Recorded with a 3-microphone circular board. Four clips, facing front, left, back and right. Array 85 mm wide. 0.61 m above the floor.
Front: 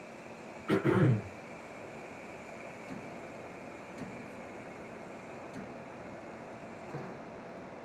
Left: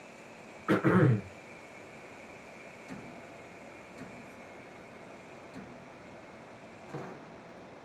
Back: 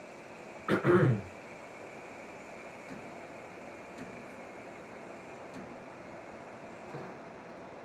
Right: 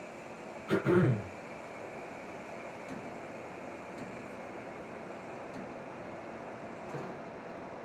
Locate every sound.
0.7 s throat clearing: 125° left, 4 m